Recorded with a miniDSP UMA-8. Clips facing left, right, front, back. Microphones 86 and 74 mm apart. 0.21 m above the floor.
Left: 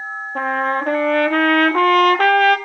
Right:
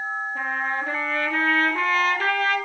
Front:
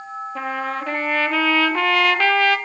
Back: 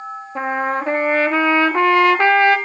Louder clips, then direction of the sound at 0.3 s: Left 10 dB, back 6 dB; 115° left.